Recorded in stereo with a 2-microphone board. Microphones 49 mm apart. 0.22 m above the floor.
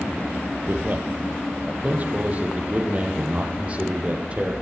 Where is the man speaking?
40° right (ahead or behind), 6.5 m; by 4.5 s 25° right (ahead or behind), 10.5 m.